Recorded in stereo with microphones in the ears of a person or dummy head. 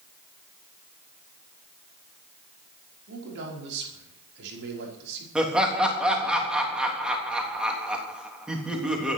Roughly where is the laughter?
Centre.